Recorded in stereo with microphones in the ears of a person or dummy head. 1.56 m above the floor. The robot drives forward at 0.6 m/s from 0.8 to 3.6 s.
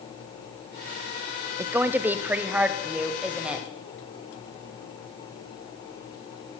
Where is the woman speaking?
15° right (ahead or behind), 0.6 m; by 3.7 s 5° right (ahead or behind), 1.8 m.